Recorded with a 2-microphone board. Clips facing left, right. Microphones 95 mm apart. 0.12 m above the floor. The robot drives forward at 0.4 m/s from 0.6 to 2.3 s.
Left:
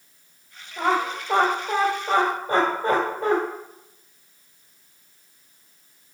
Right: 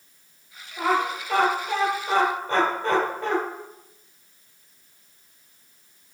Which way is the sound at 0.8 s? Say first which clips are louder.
Left 1 dB; 30° left (ahead or behind).